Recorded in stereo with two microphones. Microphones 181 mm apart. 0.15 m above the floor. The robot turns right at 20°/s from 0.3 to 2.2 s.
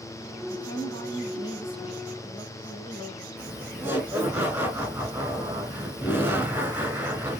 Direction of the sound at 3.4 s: 10° right (ahead or behind).